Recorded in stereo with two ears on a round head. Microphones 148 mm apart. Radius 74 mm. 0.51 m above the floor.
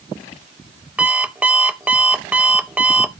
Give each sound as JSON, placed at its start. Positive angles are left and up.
{"t": 1.0, "sound": "an alarm clock", "side_deg": -10, "distance_m": 0.8}